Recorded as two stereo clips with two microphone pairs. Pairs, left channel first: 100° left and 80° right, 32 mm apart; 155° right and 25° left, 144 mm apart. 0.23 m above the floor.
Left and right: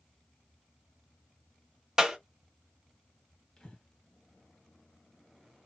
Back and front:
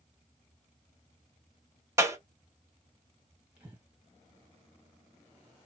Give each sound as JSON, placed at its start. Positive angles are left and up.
{"t": 2.0, "sound": "a clap", "azimuth_deg": -25, "distance_m": 0.9}
{"t": 3.6, "sound": "breathing", "azimuth_deg": 100, "distance_m": 1.6}